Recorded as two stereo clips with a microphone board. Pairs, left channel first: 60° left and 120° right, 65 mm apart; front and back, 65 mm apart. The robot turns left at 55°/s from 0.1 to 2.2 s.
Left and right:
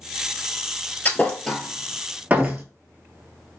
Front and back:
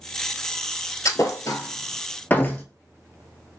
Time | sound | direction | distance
1.1 | a thud | 5° left | 0.8 m